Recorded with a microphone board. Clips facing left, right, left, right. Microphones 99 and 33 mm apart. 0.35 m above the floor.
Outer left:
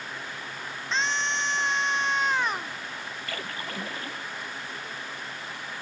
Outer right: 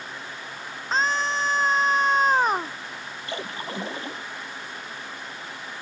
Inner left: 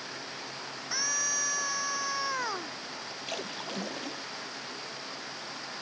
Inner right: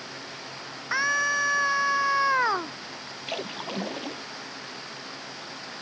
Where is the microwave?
No microwave in this recording.